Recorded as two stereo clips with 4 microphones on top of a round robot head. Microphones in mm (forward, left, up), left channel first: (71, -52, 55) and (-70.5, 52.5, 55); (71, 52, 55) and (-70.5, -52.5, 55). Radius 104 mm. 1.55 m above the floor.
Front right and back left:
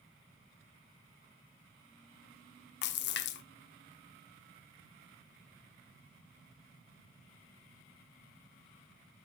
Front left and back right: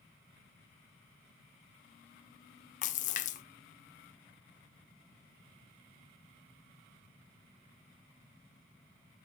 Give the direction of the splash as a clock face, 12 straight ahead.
12 o'clock.